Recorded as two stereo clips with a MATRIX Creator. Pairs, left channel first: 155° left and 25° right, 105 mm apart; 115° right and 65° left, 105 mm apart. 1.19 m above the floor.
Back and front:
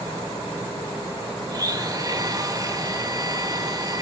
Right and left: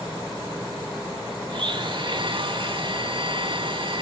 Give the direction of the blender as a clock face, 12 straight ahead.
11 o'clock.